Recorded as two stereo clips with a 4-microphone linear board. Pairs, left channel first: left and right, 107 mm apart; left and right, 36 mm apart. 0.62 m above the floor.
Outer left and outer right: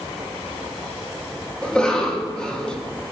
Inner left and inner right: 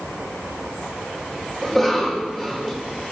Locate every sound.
1.6 s a cough: 5° left (ahead or behind), 0.7 m